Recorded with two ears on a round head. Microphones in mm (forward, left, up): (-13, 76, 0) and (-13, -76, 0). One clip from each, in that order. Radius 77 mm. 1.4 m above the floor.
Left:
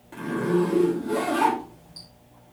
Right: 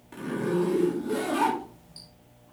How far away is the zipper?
About 2.5 m.